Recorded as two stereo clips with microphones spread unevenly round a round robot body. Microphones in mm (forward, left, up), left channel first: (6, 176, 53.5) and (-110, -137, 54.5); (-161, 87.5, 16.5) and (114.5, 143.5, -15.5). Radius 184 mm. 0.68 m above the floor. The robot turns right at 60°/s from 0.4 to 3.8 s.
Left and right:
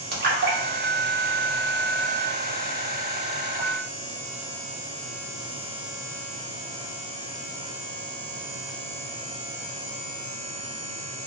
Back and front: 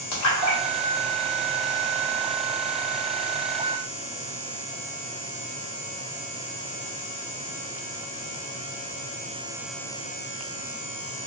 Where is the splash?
165° right, 0.7 m; by 2.2 s 60° right, 0.7 m.